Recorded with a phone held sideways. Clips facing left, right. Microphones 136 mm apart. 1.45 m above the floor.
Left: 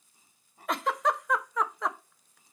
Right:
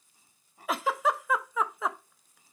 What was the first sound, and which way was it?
A giggle, centre (ahead or behind).